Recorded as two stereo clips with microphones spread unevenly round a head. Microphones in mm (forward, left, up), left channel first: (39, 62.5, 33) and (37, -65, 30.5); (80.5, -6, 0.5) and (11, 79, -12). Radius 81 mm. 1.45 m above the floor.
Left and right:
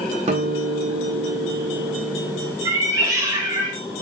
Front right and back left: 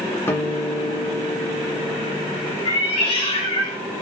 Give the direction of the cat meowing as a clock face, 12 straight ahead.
1 o'clock.